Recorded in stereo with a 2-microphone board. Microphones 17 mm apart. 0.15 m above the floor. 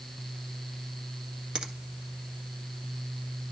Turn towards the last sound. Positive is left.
turn(degrees=-45)  # may be behind; listen again after turning